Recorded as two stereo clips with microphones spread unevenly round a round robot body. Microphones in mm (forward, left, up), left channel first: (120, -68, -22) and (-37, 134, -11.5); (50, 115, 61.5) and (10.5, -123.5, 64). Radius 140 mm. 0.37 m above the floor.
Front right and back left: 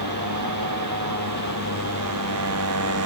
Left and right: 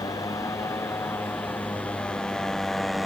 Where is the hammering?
I don't hear hammering.